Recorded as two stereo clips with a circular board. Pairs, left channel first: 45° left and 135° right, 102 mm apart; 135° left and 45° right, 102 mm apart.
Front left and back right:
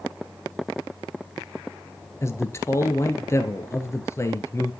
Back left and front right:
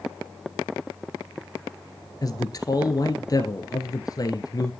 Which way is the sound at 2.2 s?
100° left.